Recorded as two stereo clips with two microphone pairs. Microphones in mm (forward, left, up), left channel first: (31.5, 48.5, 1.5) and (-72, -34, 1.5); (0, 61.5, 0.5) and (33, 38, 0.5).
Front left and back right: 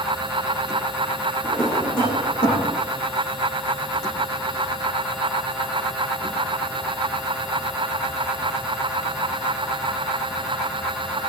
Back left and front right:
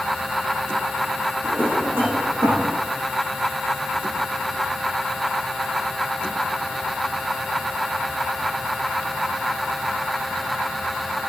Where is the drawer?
15° right, 8.5 m.